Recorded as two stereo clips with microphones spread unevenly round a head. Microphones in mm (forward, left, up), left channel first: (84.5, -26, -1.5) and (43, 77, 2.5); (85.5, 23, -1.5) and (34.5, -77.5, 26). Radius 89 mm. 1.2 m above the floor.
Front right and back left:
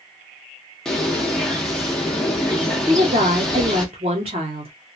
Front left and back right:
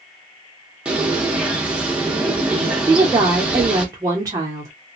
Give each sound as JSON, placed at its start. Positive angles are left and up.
{"t": 0.8, "sound": "a bird", "azimuth_deg": -155, "distance_m": 0.7}
{"t": 2.9, "sound": "a woman speaking", "azimuth_deg": 170, "distance_m": 0.7}